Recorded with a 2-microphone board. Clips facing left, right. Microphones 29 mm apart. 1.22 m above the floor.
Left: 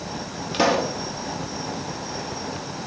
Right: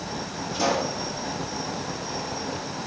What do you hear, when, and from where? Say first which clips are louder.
0.5 s a pop: left 4 dB; 60° left (ahead or behind), 0.5 m